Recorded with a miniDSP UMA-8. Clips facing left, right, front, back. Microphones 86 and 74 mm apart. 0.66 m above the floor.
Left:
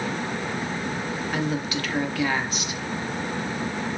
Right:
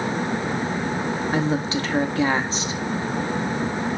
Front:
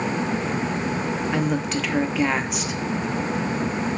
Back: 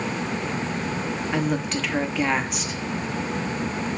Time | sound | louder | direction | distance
1.3 | a woman speaking | right 4 dB, back 1 dB | 90° right | 0.6 m